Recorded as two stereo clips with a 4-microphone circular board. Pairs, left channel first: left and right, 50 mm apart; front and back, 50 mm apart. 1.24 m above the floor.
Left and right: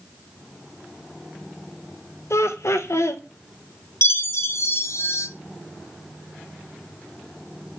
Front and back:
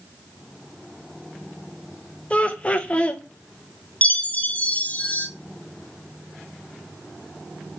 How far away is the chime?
About 0.5 m.